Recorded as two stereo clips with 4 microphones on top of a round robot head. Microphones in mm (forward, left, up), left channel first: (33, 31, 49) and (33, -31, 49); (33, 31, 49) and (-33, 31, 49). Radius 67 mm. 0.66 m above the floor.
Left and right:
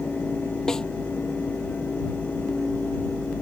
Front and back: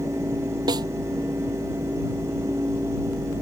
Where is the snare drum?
170° left.